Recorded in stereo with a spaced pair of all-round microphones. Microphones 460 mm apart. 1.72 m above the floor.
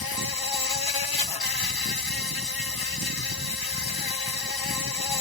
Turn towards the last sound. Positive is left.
turn(degrees=50)  # may be behind; listen again after turning